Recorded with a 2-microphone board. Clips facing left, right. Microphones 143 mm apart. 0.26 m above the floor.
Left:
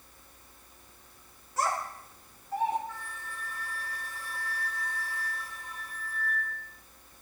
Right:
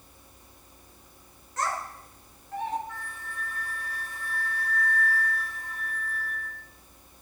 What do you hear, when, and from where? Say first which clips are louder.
1.6 s a child speaking: left 1 dB; 10° left (ahead or behind), 2 m
2.9 s a flute: right 2 dB; 15° right (ahead or behind), 6 m